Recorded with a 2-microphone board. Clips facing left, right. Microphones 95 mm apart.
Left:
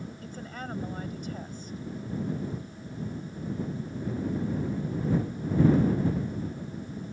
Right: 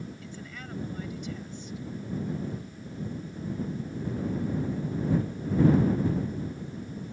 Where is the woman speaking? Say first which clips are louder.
Left 3 dB; 40° left (ahead or behind).